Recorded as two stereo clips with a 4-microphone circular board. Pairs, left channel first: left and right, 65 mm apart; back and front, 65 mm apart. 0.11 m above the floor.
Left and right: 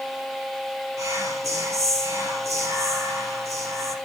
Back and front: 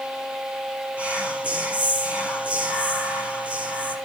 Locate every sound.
1.0 s whispering: 70° right, 3.5 m